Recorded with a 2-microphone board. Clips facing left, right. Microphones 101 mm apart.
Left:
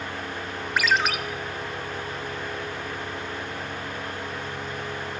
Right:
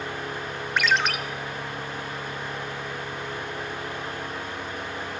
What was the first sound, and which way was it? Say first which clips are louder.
A ringtone: even; 5° left (ahead or behind).